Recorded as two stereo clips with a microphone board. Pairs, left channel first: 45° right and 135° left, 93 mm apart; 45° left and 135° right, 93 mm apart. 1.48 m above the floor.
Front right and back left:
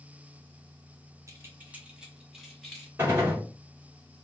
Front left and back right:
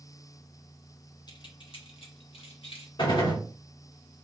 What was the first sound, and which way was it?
Keys jangling, 80° left.